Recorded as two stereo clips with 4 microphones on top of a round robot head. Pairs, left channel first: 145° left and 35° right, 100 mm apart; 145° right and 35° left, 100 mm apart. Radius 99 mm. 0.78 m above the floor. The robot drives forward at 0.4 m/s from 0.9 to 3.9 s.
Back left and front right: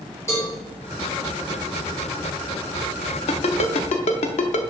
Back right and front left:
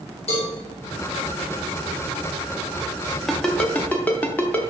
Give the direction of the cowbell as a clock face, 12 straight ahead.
5 o'clock.